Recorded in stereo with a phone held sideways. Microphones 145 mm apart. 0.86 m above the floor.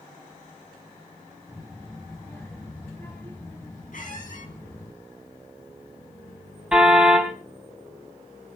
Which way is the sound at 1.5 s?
20° left (ahead or behind).